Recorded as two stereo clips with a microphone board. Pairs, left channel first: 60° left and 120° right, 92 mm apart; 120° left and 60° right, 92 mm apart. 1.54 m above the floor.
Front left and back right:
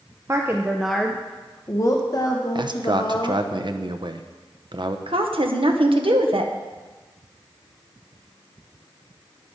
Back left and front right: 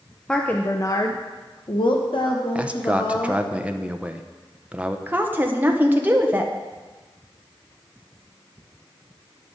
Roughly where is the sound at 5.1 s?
Behind right.